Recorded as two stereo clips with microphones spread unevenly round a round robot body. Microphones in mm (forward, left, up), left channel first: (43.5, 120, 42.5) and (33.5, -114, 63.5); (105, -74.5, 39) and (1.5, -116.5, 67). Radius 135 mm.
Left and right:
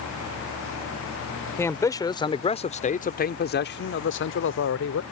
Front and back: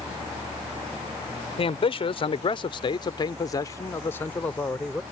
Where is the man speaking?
10° left; by 5.0 s 100° left.